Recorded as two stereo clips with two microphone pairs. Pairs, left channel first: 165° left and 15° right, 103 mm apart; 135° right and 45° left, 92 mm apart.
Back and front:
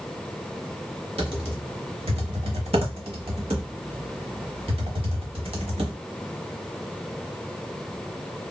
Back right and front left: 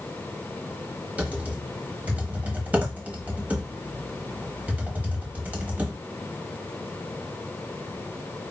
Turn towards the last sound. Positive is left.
turn(degrees=-25)